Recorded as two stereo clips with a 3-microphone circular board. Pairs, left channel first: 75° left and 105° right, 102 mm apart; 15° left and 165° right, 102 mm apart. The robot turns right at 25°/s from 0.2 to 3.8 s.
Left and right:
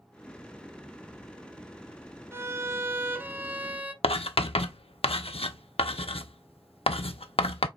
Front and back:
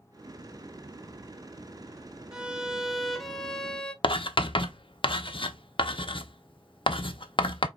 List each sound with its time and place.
2.3 s a violin: 90° right, 0.6 m; by 3.9 s 55° right, 0.6 m
4.0 s writing: 55° left, 0.5 m